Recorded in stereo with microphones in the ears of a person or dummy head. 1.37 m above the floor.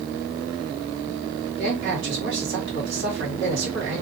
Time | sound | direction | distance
1.6 | a man speaking | 60° right (ahead or behind) | 2 m